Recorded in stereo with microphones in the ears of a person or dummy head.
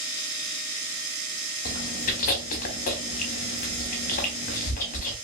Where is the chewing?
40° left (ahead or behind), 0.6 m.